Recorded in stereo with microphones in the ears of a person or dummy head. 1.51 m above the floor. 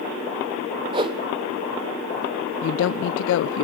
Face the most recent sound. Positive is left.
turn(degrees=85)